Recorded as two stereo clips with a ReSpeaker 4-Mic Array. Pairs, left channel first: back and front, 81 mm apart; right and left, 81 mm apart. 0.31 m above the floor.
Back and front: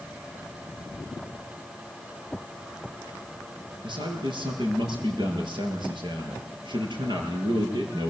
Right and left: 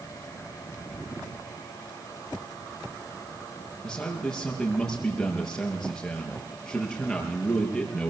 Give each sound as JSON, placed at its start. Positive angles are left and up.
{"t": 3.8, "sound": "a man speaking", "azimuth_deg": -5, "distance_m": 7.0}